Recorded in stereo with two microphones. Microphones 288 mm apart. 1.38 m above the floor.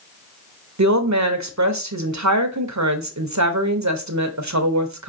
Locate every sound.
0.8 s a woman speaking: 70° right (ahead or behind), 0.6 m